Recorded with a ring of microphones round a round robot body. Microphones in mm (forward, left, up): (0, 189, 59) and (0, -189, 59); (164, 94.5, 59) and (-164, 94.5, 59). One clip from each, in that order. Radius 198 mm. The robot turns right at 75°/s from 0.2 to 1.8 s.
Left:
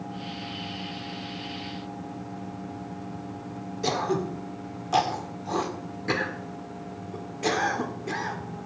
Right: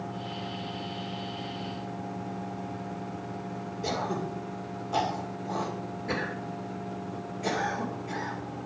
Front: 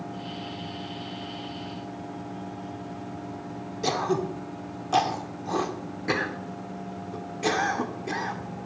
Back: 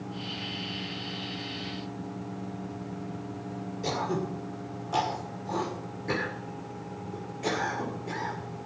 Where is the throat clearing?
40° left, 2 m.